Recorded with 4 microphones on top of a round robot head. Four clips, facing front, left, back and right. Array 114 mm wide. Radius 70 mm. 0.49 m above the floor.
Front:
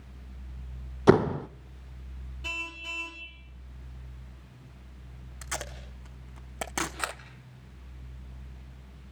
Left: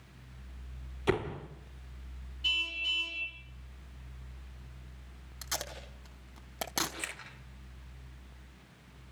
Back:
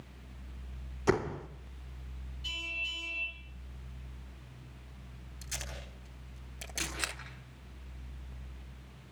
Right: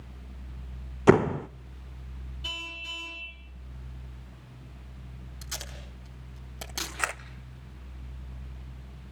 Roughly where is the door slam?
Ahead right.